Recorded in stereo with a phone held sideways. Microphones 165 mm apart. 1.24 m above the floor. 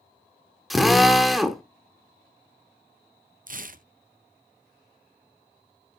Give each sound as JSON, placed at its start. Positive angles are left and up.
{"t": 0.7, "sound": "a drill", "side_deg": 0, "distance_m": 1.1}
{"t": 3.5, "sound": "tearing paper", "side_deg": -55, "distance_m": 0.6}